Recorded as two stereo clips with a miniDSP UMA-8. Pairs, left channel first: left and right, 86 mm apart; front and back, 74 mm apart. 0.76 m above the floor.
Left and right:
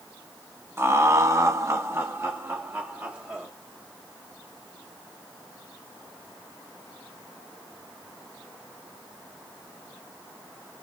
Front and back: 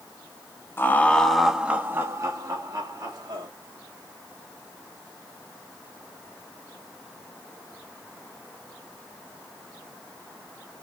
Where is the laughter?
40° right, 0.8 m; by 3.5 s 160° right, 1.5 m.